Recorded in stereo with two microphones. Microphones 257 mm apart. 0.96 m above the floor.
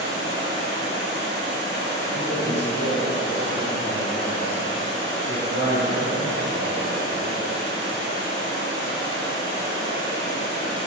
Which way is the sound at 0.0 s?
45° right (ahead or behind).